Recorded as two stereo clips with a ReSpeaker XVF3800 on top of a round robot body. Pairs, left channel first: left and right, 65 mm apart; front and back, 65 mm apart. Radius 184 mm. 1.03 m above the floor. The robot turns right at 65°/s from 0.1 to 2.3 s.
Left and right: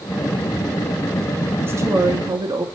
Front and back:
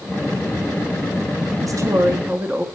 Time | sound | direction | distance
1.6 | a woman speaking | 150° right | 1.8 m